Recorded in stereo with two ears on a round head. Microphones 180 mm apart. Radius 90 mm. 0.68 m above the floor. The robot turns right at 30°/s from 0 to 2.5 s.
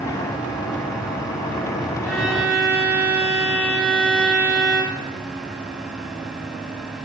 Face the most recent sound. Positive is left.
turn(degrees=-10)  # may be behind; listen again after turning